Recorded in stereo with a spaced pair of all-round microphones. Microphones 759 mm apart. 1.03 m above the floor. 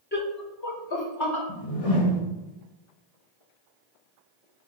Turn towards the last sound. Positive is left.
turn(degrees=45)  # may be behind; listen again after turning